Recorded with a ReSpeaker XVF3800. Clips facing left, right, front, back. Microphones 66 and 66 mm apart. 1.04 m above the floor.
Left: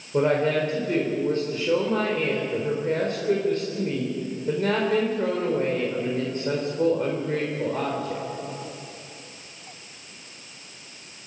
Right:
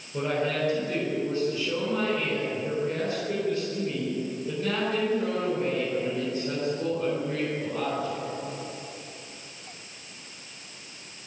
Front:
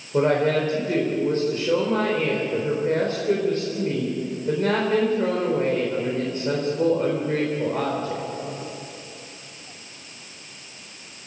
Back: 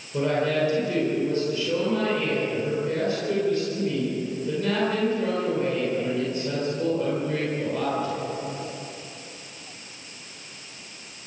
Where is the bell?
I don't hear a bell.